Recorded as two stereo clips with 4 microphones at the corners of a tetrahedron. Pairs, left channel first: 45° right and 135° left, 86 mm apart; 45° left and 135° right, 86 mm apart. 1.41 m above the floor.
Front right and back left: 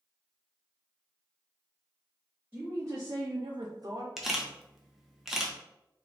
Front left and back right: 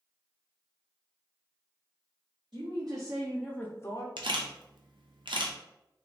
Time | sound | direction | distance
2.5 | a woman speaking | 155° right | 0.9 m
4.2 | a camera shutter | 140° right | 0.7 m